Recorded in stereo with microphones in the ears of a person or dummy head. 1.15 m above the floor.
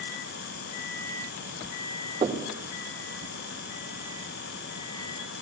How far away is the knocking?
About 2.5 m.